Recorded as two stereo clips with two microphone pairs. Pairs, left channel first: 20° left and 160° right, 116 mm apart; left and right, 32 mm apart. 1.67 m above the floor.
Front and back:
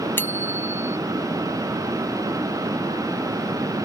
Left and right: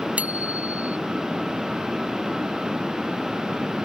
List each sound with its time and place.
0.2 s a bicycle bell: 55° right